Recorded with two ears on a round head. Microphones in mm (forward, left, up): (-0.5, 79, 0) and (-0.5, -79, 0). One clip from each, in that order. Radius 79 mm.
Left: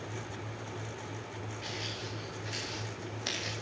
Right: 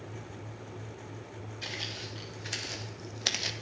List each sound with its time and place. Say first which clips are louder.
1.6 s footsteps: right 2 dB; 45° right (ahead or behind), 3.5 m; by 3.5 s 35° right (ahead or behind), 1.2 m